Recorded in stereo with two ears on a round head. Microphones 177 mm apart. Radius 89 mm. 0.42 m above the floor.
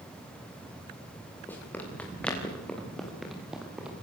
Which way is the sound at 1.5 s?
10° left (ahead or behind).